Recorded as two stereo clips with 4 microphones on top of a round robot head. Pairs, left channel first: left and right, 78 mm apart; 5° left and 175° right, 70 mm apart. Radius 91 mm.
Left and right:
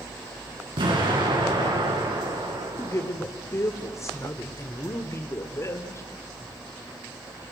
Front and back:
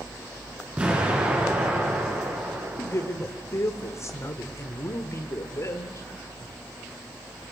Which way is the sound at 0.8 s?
100° right.